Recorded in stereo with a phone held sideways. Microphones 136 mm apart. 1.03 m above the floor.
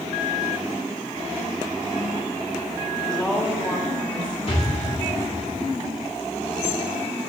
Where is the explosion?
50° left (ahead or behind), 2.5 m.